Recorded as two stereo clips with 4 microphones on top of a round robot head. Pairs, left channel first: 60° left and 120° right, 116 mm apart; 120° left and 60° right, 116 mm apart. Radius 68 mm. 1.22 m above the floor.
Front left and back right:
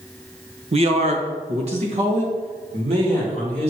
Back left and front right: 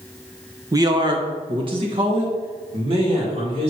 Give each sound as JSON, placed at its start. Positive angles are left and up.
{"t": 0.7, "sound": "a man speaking", "azimuth_deg": -115, "distance_m": 1.0}